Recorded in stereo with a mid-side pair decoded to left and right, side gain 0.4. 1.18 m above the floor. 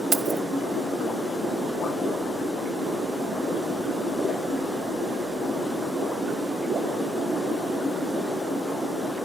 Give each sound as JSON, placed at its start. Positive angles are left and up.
{"t": 0.1, "sound": "keys jangling", "azimuth_deg": -50, "distance_m": 0.8}